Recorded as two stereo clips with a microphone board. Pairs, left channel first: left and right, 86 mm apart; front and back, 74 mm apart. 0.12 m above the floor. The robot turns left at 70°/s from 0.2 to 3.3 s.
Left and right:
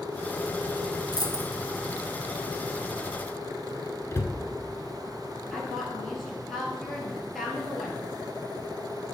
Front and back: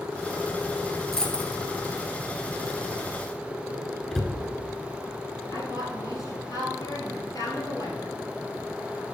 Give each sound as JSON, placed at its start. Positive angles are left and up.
{"t": 1.1, "sound": "a dropped coin", "azimuth_deg": 85, "distance_m": 0.8}
{"t": 4.1, "sound": "a cupboard door", "azimuth_deg": 80, "distance_m": 0.7}
{"t": 5.5, "sound": "a woman speaking", "azimuth_deg": 0, "distance_m": 2.0}